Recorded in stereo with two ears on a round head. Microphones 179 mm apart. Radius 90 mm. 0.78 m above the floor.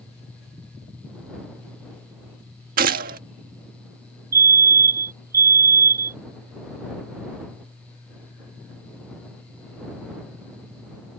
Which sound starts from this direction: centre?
A fire alarm, at 4.3 s.